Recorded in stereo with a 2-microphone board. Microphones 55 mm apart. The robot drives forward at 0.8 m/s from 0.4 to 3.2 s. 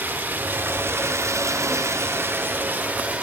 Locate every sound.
0.0 s running water: 35° right (ahead or behind), 1.2 m; by 3.2 s 25° right (ahead or behind), 1.5 m